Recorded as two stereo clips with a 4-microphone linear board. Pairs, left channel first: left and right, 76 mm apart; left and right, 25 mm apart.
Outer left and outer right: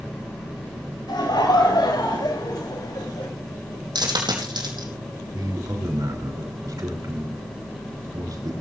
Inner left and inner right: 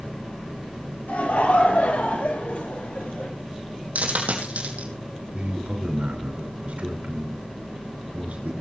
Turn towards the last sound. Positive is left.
turn(degrees=-55)  # may be behind; listen again after turning